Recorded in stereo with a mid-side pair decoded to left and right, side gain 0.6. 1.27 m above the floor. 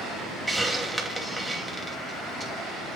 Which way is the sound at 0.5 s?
5° right.